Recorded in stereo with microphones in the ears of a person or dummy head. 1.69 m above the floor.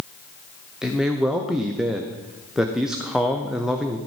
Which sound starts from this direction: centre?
A man speaking, at 0.8 s.